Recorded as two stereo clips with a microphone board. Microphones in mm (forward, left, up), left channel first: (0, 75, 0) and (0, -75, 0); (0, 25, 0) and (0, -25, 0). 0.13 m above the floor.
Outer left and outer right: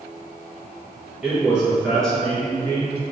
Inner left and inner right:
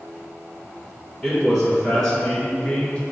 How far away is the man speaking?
About 1.8 m.